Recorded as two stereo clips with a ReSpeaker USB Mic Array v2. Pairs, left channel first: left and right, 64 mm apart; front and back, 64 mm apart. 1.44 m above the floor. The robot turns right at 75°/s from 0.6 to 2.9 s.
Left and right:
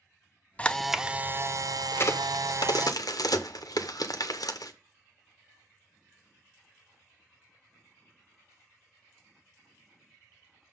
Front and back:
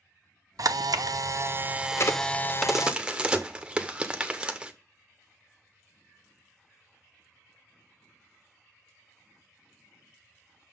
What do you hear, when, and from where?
0.6 s a camera shutter: 160° left, 0.5 m; by 2.9 s 25° right, 0.5 m
1.9 s a crack: 35° left, 0.8 m; by 4.7 s 105° left, 0.8 m